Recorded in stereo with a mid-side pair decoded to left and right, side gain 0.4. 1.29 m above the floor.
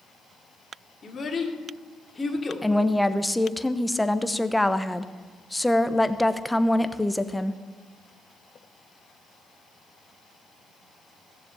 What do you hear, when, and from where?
1.0 s a child speaking: 40° left, 2 m; by 2.6 s 15° left, 2.5 m
2.6 s a woman speaking: 5° left, 0.9 m